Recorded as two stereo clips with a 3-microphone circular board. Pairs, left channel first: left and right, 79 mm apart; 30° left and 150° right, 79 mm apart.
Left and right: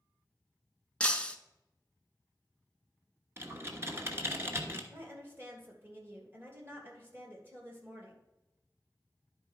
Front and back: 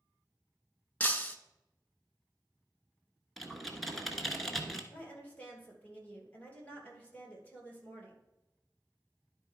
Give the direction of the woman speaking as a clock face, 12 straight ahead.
1 o'clock.